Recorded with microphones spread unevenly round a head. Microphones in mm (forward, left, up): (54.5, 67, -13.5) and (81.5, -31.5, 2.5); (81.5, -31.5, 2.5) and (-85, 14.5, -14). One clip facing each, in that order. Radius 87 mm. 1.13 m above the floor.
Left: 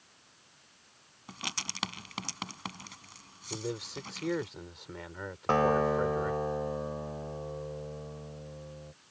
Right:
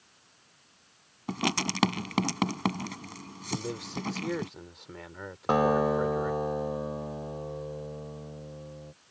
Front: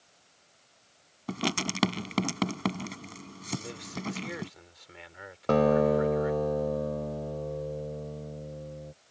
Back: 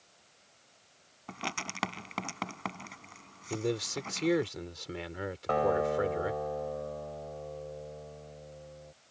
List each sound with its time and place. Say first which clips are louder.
1.3 s writing: right 13 dB, front 9 dB; 55° right
3.5 s a man speaking: right 2 dB, back 6 dB; 165° right
5.5 s a guitar: right 2 dB, front 6 dB; 10° right